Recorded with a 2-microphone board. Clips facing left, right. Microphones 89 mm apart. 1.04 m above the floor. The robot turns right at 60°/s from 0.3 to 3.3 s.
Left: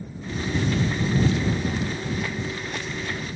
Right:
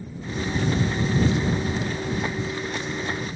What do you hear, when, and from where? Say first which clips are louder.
1.6 s a thud: even; 40° left (ahead or behind); by 2.0 s 65° left (ahead or behind)